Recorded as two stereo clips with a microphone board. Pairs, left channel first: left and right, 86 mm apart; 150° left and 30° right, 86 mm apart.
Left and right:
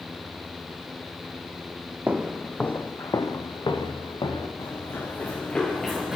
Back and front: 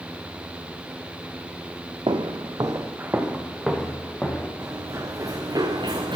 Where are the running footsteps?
35° left, 1.3 m; by 6.2 s 5° right, 1.1 m.